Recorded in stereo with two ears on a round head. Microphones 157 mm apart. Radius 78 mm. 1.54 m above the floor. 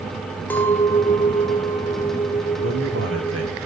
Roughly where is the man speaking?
Right.